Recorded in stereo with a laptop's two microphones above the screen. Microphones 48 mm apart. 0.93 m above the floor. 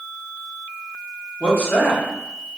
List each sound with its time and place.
1.4 s a man speaking: 45° left (ahead or behind), 0.8 m